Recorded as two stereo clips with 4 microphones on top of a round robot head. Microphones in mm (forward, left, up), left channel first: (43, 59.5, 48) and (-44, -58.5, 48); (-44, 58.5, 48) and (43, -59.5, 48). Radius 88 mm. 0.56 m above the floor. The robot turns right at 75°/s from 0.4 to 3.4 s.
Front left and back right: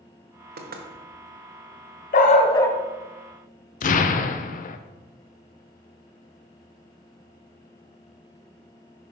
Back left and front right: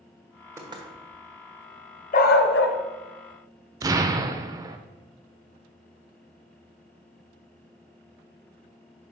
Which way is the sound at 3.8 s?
15° left.